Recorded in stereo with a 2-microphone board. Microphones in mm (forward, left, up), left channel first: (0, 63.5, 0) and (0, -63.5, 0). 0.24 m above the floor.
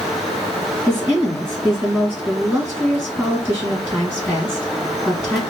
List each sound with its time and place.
0.9 s a woman speaking: 15° right (ahead or behind), 3 m